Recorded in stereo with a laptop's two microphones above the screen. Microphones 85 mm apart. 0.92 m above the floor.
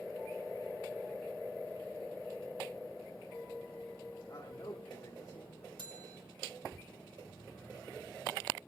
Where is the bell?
65° right (ahead or behind), 1.4 m.